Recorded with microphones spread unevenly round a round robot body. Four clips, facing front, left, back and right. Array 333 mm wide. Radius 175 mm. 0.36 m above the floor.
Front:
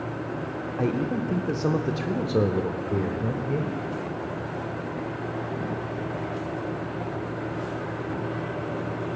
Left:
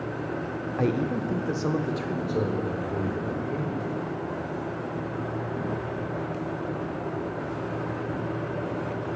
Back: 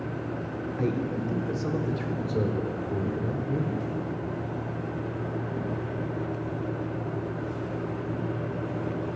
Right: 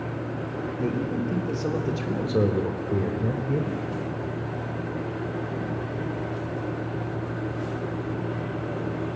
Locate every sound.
0.8 s a man speaking: 130° left, 0.8 m; by 3.8 s 35° right, 1.6 m